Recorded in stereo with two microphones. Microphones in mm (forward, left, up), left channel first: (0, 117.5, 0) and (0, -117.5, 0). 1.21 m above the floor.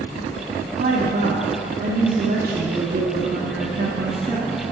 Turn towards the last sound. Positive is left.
turn(degrees=-40)  # may be behind; listen again after turning